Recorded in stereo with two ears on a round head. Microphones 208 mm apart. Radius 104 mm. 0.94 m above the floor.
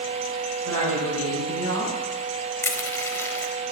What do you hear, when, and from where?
0.7 s a man speaking: 75° right (ahead or behind), 5.5 m
2.6 s crushing: 10° left (ahead or behind), 0.8 m